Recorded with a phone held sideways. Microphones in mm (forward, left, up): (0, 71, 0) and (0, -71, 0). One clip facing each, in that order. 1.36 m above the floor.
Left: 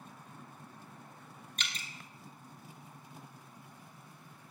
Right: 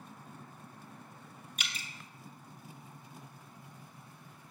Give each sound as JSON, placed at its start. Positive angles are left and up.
{"t": 1.6, "sound": "dripping", "side_deg": -10, "distance_m": 0.8}